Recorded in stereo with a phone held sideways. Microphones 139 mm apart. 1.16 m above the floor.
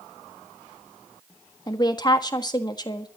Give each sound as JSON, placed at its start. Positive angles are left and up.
{"t": 1.7, "sound": "a woman speaking", "side_deg": 30, "distance_m": 1.6}